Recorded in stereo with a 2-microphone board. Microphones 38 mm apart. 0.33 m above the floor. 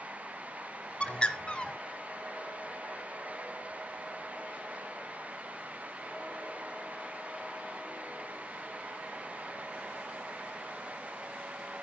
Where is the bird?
30° left (ahead or behind), 1.0 m.